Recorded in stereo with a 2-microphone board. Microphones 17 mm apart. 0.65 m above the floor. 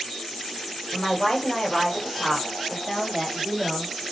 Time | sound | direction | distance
0.9 | a woman speaking | 45° left (ahead or behind) | 2 m